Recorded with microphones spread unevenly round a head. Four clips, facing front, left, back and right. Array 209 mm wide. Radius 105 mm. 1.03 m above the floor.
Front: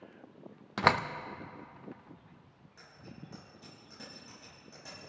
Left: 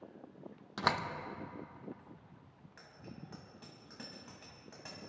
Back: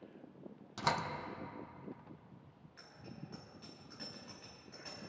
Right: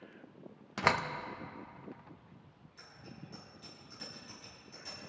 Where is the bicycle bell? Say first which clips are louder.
Left 1 dB, front 1 dB; 70° left, 5 m.